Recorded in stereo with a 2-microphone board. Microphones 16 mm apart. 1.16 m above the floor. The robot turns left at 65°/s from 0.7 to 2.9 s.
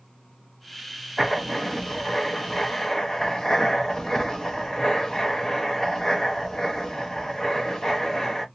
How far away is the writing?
About 0.6 m.